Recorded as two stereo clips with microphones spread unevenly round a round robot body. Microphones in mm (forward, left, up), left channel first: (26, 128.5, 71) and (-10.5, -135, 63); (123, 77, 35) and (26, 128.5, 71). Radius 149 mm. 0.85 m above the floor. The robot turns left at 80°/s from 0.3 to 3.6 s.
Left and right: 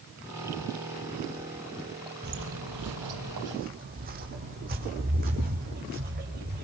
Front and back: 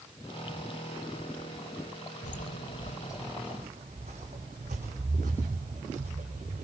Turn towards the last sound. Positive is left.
turn(degrees=-155)